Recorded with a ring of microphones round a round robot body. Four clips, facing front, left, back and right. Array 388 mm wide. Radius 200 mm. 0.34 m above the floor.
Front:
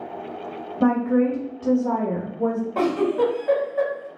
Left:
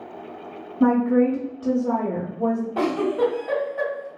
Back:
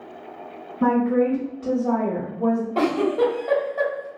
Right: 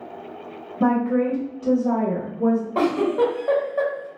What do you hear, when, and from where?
0.8 s a woman speaking: 25° right, 1.6 m; by 2.6 s 45° left, 1.3 m
2.8 s a giggle: 80° right, 1.8 m